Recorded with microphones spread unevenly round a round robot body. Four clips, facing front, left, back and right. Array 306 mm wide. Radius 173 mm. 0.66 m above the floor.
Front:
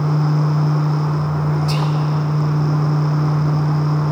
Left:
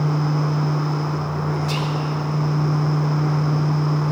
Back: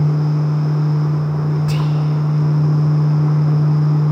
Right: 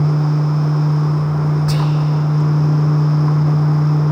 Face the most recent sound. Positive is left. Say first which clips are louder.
# right 5 dB, even
turn(degrees=-70)